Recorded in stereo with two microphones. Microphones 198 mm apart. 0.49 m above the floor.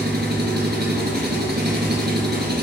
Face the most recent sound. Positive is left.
turn(degrees=-60)  # may be behind; listen again after turning